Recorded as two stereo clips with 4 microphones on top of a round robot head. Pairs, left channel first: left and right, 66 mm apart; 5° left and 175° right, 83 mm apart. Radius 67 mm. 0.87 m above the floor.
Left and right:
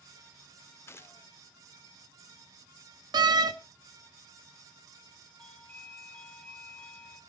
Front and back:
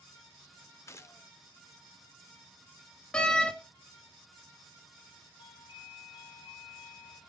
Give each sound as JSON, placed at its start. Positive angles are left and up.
{"t": 0.9, "sound": "a gunshot", "azimuth_deg": 50, "distance_m": 1.0}
{"t": 3.1, "sound": "a door slam", "azimuth_deg": -80, "distance_m": 1.0}
{"t": 5.4, "sound": "a doorbell", "azimuth_deg": 15, "distance_m": 3.5}